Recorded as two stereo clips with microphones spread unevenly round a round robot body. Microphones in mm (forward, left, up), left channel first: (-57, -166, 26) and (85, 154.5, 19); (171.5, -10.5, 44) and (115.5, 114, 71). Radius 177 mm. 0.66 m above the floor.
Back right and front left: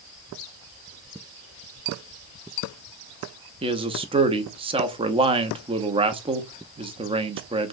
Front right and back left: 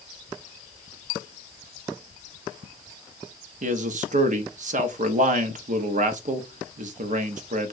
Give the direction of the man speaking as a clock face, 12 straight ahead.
7 o'clock.